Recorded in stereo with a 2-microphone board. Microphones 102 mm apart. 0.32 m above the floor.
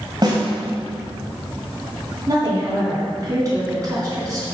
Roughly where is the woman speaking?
Right.